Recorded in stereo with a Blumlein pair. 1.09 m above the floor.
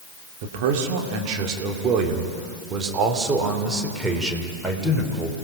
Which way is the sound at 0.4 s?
50° right.